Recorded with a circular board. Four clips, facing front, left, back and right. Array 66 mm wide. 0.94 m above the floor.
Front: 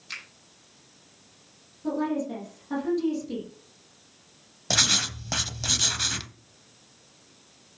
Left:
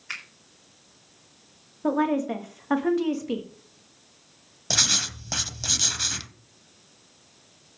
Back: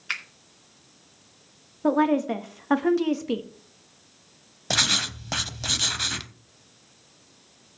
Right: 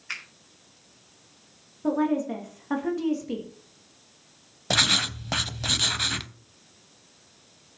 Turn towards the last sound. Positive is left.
turn(degrees=-110)